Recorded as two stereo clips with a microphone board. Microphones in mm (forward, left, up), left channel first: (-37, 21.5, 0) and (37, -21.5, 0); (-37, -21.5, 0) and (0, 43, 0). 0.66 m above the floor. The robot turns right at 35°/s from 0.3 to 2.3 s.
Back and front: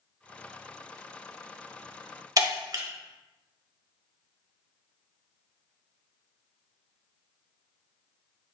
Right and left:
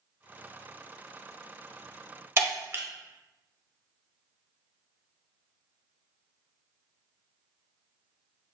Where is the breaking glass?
10° left, 0.7 m.